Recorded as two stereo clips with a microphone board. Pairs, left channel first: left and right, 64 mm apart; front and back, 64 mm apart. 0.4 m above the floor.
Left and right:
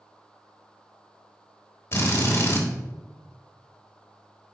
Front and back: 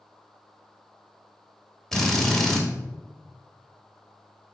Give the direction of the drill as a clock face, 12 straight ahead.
9 o'clock.